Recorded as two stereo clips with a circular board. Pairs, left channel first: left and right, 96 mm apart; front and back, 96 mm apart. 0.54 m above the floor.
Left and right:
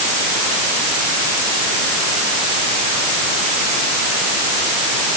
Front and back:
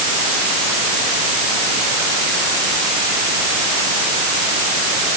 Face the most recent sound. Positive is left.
No sound to turn to.